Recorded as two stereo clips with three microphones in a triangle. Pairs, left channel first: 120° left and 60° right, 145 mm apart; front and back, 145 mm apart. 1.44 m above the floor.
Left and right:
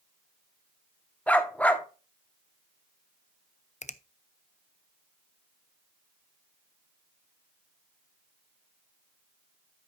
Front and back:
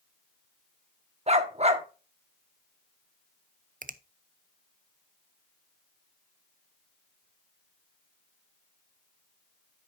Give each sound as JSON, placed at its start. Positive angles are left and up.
{"t": 1.3, "sound": "a dog barking", "azimuth_deg": -160, "distance_m": 1.2}
{"t": 3.8, "sound": "a finger snap", "azimuth_deg": 155, "distance_m": 0.6}